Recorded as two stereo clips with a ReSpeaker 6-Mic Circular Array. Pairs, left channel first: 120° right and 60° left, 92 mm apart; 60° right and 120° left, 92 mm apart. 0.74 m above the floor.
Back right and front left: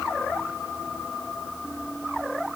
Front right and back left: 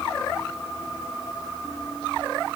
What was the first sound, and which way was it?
Only background noise.